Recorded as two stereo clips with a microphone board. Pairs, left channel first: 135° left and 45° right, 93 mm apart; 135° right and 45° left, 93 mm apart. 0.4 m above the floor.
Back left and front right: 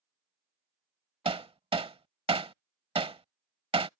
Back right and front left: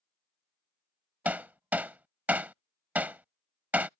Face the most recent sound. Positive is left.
turn(degrees=-30)